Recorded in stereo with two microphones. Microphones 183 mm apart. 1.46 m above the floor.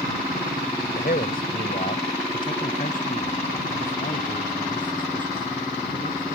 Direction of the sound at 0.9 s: 60° left (ahead or behind).